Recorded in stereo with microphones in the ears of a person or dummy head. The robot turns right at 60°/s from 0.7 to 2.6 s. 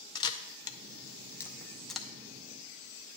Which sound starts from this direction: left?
A camera shutter, at 0.1 s.